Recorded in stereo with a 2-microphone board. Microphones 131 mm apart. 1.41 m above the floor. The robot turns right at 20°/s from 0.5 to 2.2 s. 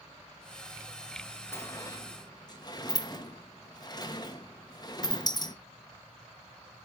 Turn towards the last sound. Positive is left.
turn(degrees=30)  # may be behind; listen again after turning